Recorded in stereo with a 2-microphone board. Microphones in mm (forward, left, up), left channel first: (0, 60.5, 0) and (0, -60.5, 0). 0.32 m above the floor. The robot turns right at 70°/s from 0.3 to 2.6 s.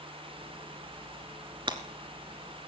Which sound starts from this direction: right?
Breaking glass, at 1.7 s.